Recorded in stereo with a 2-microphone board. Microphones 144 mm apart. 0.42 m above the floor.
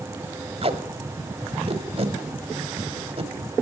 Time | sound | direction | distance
0.6 | tape being pulled | 45° right (ahead or behind) | 1.3 m